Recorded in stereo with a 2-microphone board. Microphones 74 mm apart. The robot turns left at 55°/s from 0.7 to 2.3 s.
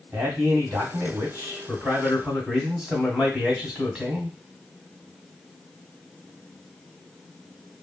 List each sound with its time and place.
0.1 s a man speaking: 70° right, 1.3 m; by 4.4 s 160° right, 1.3 m